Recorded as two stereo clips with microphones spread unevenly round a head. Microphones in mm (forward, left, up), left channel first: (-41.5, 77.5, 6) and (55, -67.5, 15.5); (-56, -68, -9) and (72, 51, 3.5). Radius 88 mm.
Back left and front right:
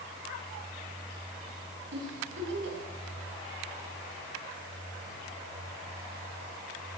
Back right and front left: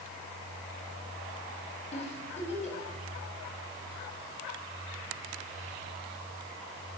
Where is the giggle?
80° right, 6 m.